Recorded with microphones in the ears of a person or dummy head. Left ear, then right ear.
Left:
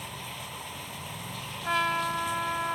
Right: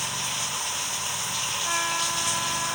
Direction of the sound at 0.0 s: 55° right (ahead or behind).